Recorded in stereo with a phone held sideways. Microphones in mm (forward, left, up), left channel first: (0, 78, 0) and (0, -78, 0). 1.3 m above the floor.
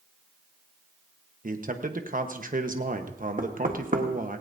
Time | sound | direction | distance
1.4 | a man speaking | 60° right (ahead or behind) | 1.1 m
3.4 | knocking | 65° right (ahead or behind) | 1.3 m